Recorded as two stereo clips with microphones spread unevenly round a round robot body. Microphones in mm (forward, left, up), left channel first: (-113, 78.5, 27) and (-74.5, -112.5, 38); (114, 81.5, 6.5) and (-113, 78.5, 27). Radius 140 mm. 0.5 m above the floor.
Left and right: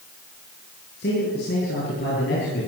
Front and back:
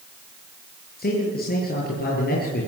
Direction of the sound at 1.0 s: 50° left.